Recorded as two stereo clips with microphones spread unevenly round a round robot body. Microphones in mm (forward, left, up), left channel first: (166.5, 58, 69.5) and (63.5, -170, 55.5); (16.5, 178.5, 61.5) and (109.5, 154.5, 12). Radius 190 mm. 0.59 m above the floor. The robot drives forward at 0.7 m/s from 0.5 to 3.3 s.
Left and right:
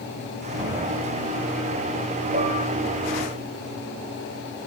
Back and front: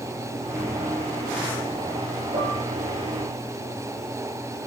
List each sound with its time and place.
2.3 s dishes clattering: 65° right, 9.5 m